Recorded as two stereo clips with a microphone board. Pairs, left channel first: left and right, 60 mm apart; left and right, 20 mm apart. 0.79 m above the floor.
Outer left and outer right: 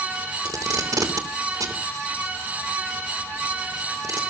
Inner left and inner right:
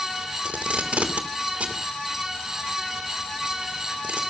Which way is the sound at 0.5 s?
75° right (ahead or behind).